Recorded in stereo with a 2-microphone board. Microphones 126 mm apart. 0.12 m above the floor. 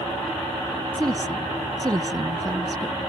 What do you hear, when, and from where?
0.9 s a woman speaking: 30° right (ahead or behind)